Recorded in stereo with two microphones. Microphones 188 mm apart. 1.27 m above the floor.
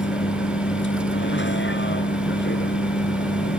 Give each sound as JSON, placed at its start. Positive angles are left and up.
{"t": 0.0, "sound": "a vehicle", "side_deg": 80}